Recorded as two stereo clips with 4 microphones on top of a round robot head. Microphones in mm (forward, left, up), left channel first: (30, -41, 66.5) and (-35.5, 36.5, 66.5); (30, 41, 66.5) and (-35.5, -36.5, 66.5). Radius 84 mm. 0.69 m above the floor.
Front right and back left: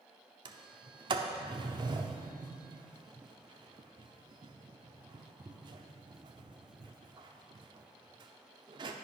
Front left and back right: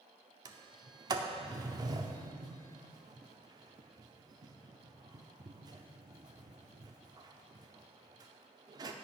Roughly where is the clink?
No clink in this recording.